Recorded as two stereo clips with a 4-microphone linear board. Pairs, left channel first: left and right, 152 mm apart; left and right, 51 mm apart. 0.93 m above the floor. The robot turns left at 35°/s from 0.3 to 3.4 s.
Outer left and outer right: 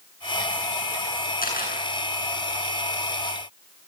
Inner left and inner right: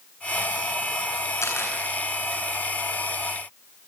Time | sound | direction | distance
1.4 | a camera shutter | 85° left | 8.5 m